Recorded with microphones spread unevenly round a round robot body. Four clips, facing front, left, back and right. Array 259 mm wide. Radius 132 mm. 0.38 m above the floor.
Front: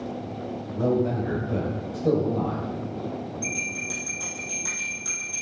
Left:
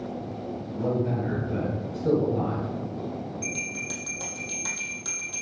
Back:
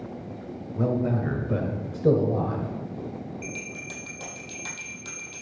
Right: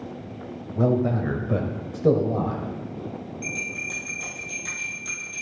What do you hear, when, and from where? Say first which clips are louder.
0.8 s a man speaking: right 5 dB, front 2 dB; 95° right, 2 m; by 2.7 s 140° right, 1.7 m
3.4 s a bell: even, front 4 dB; 95° left, 4.5 m